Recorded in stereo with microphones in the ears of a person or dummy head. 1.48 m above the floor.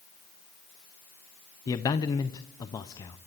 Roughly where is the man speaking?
Centre.